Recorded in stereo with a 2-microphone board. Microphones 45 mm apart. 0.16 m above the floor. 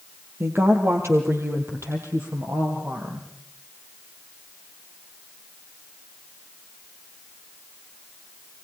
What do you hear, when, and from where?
0.4 s a woman speaking: 60° right (ahead or behind), 4 m; by 3.3 s 70° right (ahead or behind), 5 m